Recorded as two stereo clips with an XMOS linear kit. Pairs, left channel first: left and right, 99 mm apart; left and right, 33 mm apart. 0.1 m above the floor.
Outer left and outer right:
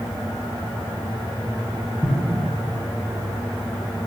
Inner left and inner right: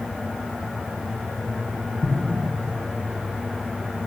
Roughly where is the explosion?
Centre.